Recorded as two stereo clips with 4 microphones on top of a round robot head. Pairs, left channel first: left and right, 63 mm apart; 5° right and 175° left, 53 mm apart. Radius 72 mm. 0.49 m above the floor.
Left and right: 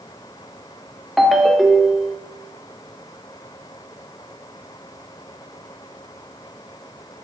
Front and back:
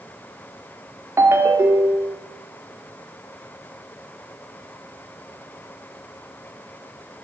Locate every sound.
1.2 s a ringtone: straight behind, 1.0 m